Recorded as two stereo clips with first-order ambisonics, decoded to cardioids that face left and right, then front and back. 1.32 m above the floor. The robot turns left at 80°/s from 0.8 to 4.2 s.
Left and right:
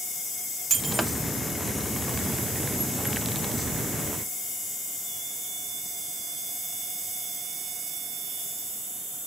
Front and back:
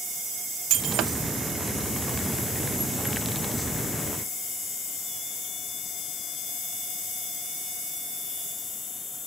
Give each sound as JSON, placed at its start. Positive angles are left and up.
{"t": 0.7, "sound": "breaking glass", "azimuth_deg": -160, "distance_m": 0.6}